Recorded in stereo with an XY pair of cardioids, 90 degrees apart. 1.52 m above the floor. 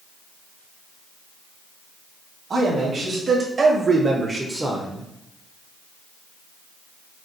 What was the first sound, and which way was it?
A man speaking, 60° right.